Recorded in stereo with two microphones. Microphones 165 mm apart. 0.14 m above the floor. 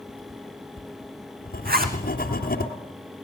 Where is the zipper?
65° right (ahead or behind), 3 m.